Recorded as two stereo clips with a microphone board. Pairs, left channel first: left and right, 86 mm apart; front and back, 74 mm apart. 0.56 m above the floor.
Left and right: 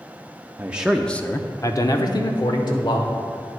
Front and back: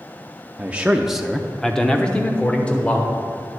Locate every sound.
0.6 s a man speaking: 130° right, 0.6 m; by 3.1 s 70° left, 1.7 m